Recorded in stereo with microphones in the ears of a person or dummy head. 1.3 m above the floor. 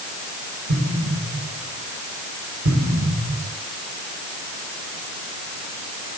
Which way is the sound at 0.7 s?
65° right (ahead or behind).